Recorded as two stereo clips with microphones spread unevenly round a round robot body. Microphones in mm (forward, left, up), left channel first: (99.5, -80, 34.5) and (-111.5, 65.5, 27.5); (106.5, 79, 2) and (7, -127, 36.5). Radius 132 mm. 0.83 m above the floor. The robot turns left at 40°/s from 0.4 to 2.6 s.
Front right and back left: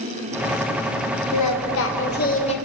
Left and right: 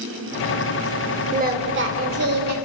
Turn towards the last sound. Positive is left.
turn(degrees=-105)